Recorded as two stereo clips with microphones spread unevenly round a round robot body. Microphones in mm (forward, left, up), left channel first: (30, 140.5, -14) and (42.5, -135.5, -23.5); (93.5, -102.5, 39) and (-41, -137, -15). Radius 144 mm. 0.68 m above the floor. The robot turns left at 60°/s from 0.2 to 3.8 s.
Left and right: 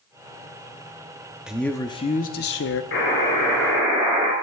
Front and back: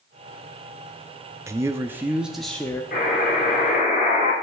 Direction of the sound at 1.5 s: 170° right.